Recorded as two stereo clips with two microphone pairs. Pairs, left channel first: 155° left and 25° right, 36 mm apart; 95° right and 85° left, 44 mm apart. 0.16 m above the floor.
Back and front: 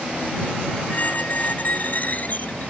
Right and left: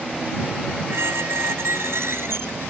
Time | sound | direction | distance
0.9 | a squeak | 110° left | ?